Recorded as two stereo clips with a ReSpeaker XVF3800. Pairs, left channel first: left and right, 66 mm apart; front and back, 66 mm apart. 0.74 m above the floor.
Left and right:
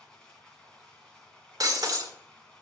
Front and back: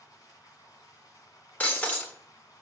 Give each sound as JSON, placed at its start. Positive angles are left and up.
{"t": 0.0, "sound": "running water", "azimuth_deg": 15, "distance_m": 2.5}
{"t": 1.6, "sound": "breaking glass", "azimuth_deg": -65, "distance_m": 1.3}